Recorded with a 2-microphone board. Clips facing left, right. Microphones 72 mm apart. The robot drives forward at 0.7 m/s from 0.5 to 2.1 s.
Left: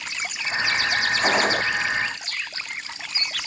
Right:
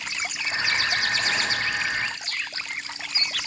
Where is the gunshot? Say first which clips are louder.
Left 6 dB; 50° left (ahead or behind).